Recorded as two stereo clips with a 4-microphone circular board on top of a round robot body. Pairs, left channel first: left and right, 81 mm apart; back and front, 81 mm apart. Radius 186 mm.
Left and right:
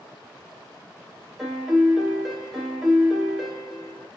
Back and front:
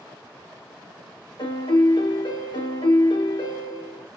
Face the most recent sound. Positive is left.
turn(degrees=180)